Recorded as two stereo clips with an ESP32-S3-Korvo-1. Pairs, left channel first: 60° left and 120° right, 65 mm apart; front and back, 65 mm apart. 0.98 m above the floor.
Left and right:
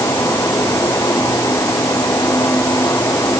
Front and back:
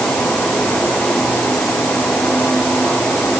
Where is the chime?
No chime in this recording.